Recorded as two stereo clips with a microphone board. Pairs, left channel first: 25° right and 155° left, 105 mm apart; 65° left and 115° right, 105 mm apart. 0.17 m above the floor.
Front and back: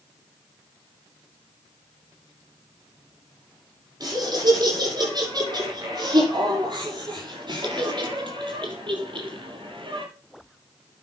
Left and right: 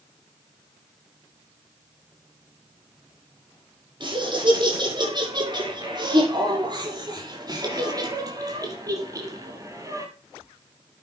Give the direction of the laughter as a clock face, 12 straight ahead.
5 o'clock.